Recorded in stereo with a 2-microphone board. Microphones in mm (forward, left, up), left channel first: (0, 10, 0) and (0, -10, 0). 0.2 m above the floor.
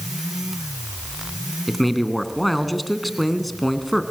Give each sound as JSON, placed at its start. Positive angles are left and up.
{"t": 1.7, "sound": "a man speaking", "side_deg": 5, "distance_m": 2.0}